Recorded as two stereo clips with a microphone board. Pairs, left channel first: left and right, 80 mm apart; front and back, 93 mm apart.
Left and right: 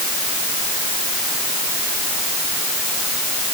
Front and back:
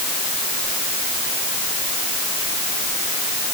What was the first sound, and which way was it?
Only background noise.